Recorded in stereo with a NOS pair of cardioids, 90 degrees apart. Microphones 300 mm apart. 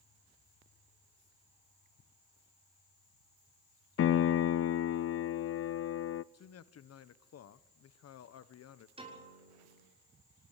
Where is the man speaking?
55° left, 1.4 m.